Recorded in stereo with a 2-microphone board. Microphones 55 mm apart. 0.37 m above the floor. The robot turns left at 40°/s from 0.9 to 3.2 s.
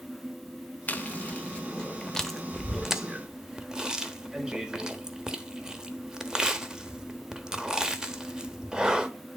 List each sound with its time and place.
0.9 s chewing: 30° left (ahead or behind), 0.9 m; by 9.1 s 15° right (ahead or behind), 0.9 m